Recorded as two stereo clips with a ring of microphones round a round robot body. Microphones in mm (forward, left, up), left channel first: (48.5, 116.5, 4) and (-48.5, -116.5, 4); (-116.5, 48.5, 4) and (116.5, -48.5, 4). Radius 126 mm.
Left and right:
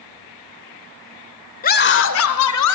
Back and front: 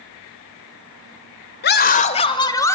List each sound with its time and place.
1.6 s a scream: 120° left, 1.6 m; by 2.8 s 80° left, 2.5 m